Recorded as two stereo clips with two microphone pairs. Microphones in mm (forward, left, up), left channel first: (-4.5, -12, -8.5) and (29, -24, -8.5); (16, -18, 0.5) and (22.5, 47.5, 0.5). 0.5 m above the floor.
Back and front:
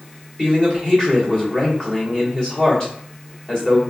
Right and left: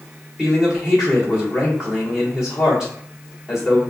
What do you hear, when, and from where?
0.4 s a man speaking: 145° left, 1.3 m